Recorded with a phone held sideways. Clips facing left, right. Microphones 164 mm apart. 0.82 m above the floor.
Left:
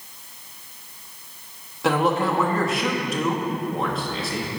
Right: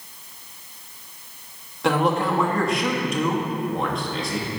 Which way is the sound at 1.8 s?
Centre (ahead or behind).